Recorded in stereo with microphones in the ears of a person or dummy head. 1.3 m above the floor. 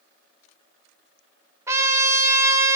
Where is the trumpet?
15° right (ahead or behind), 1.0 m.